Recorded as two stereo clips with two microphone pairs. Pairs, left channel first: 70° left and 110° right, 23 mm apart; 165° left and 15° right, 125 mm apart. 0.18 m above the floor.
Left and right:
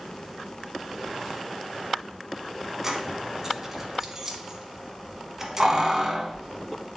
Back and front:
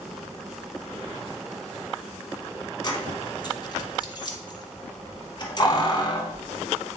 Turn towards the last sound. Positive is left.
turn(degrees=-175)